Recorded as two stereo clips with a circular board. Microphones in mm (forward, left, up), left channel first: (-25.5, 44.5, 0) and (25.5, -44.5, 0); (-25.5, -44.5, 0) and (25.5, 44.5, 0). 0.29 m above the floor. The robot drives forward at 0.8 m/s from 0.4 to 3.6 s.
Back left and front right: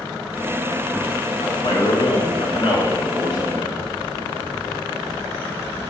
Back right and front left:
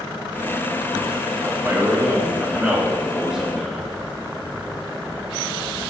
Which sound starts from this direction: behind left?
A man speaking, at 1.4 s.